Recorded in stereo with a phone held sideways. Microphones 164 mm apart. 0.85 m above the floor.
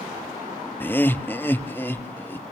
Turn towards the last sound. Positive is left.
turn(degrees=15)  # may be behind; listen again after turning